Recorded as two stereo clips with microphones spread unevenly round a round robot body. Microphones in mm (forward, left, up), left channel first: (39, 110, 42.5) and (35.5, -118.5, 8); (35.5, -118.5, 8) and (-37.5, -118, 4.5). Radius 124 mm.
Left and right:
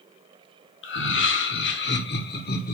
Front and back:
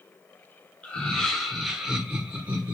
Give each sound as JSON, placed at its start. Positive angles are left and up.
{"t": 0.8, "sound": "laughter", "azimuth_deg": 70, "distance_m": 1.6}